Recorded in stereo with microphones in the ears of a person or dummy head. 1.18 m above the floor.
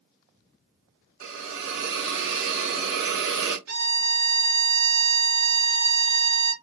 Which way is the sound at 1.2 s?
75° right (ahead or behind).